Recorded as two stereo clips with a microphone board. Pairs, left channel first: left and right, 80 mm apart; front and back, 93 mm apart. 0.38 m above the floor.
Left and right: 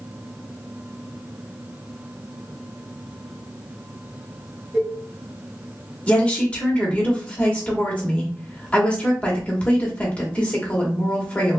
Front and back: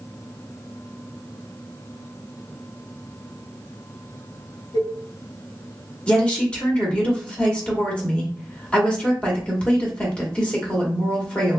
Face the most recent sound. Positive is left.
turn(degrees=55)